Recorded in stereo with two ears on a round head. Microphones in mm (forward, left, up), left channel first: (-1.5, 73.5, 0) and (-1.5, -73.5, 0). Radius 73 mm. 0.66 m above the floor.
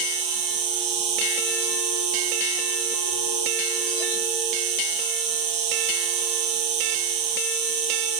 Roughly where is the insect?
Right.